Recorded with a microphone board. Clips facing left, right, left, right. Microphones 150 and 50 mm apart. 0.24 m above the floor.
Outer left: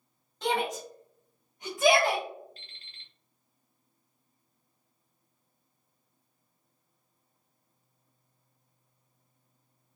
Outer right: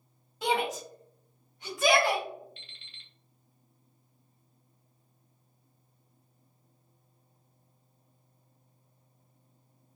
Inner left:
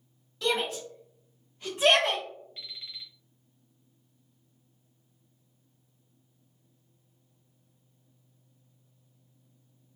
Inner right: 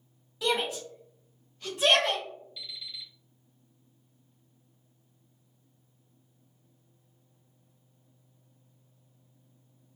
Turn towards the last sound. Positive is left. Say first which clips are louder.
# even, inner right 1 dB
turn(degrees=40)  # may be behind; listen again after turning